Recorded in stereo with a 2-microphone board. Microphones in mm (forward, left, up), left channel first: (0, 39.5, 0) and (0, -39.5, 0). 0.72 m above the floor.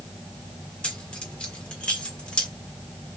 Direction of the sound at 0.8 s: 10° left (ahead or behind).